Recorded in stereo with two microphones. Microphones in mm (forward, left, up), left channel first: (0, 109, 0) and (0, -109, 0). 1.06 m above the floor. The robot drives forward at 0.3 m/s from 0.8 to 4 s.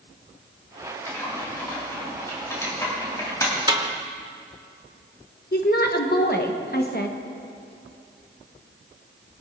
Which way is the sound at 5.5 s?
50° left (ahead or behind).